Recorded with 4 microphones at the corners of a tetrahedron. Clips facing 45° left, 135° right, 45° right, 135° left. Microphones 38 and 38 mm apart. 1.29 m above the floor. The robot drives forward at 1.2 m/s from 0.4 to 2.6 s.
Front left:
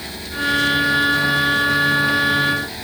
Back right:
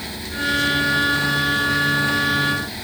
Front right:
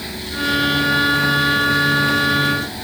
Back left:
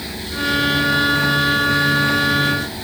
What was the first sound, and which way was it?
Only background noise.